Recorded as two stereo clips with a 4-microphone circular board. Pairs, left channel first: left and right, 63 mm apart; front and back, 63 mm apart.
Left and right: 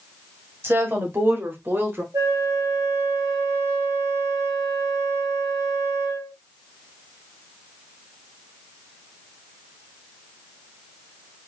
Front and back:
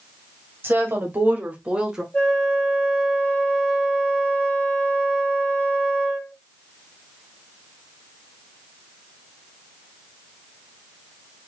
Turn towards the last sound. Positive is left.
turn(degrees=-70)